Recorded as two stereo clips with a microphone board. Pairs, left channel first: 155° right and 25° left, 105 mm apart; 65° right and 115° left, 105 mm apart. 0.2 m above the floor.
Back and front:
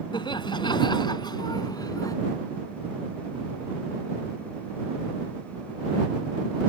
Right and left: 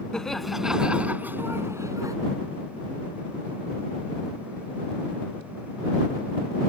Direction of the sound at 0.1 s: 150° right.